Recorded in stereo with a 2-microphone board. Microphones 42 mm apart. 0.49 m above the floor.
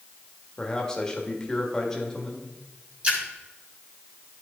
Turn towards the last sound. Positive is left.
turn(degrees=-30)  # may be behind; listen again after turning